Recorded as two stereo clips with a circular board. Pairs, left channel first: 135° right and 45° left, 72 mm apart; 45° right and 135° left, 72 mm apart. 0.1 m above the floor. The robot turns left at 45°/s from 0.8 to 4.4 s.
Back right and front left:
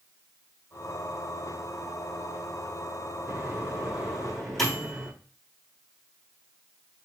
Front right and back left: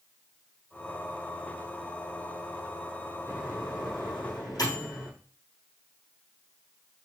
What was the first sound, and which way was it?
A microwave, straight ahead.